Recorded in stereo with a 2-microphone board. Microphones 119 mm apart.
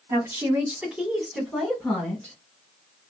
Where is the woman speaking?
25° right (ahead or behind), 1.5 m; by 2.4 s 10° left (ahead or behind), 1.8 m.